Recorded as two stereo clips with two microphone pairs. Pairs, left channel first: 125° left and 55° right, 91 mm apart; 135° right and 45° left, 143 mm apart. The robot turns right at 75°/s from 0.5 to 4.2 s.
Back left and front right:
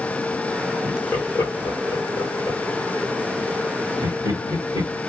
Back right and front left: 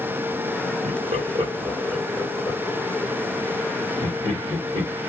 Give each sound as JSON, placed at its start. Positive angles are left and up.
{"t": 0.8, "sound": "laughter", "azimuth_deg": 50, "distance_m": 2.5}